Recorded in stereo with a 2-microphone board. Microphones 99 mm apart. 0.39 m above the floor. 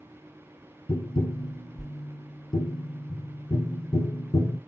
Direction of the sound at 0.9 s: 50° left (ahead or behind).